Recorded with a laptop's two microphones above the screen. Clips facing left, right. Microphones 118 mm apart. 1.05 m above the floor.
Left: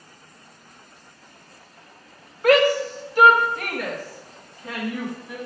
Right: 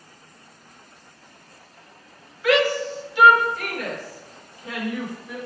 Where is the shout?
45° left (ahead or behind), 0.7 m; by 5.4 s 35° left (ahead or behind), 2.5 m.